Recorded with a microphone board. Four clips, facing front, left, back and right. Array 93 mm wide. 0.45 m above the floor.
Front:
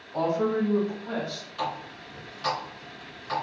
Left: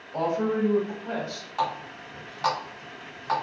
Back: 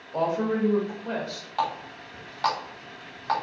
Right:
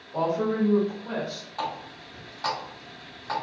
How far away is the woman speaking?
About 1.3 m.